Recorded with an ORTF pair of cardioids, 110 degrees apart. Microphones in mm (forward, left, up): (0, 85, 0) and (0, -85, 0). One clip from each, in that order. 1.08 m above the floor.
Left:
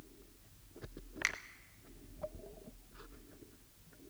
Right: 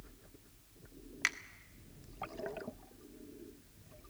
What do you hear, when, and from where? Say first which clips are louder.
1.2 s a finger snap: right 2 dB; 5° right, 1.2 m